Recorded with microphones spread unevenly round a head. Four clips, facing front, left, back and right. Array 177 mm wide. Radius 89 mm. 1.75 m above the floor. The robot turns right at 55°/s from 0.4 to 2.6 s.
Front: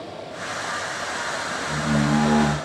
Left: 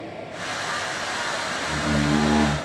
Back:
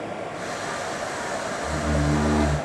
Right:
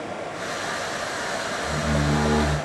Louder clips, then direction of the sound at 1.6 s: Left 2 dB, front 3 dB; 35° right.